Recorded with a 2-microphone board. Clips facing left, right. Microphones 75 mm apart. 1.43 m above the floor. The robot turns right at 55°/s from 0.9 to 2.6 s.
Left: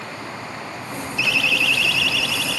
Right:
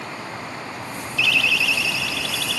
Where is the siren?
20° left (ahead or behind), 5 m; by 2.6 s 60° right (ahead or behind), 5.5 m.